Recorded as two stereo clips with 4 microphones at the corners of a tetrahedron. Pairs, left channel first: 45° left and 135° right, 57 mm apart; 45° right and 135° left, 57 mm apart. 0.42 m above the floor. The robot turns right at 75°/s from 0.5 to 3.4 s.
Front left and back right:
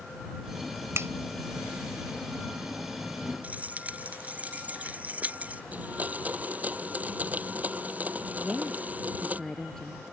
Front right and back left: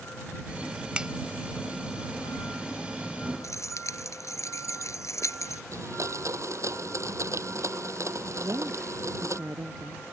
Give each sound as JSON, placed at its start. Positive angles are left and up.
{"t": 0.9, "sound": "a finger snap", "azimuth_deg": -160}
{"t": 3.4, "sound": "keys jangling", "azimuth_deg": -70}
{"t": 5.7, "sound": "a blender", "azimuth_deg": 165}
{"t": 8.4, "sound": "a woman speaking", "azimuth_deg": 125}